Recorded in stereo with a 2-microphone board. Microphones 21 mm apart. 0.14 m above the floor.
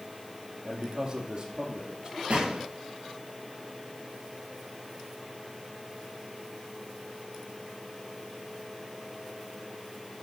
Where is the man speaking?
45° right (ahead or behind), 4.5 m.